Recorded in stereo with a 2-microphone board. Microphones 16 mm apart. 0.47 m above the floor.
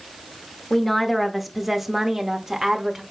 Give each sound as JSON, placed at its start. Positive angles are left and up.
{"t": 0.7, "sound": "a woman speaking", "side_deg": 10, "distance_m": 1.0}